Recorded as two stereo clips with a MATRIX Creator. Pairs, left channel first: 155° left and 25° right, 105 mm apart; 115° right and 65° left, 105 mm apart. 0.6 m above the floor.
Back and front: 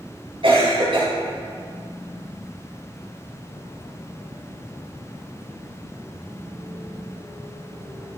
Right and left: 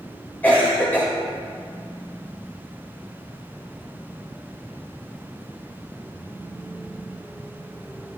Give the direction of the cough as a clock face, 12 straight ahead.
1 o'clock.